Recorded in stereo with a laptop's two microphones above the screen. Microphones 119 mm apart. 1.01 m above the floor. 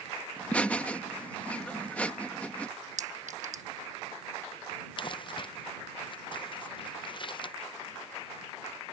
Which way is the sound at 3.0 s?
85° right.